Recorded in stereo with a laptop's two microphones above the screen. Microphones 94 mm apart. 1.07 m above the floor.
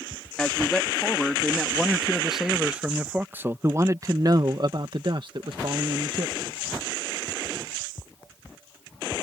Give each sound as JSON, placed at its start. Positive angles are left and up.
{"t": 0.4, "sound": "a man speaking", "side_deg": 10}